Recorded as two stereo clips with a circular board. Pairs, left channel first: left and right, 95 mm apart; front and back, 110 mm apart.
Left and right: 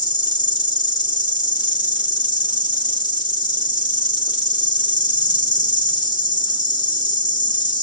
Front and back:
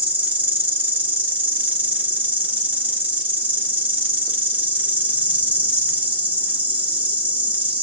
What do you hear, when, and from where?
0.0 s an insect: 110° left, 1.0 m